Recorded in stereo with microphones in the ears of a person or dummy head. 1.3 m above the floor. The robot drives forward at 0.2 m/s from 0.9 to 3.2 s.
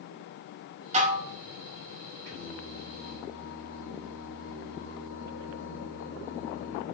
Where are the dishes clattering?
35° right (ahead or behind), 0.5 m; by 1.3 s 40° right (ahead or behind), 0.5 m.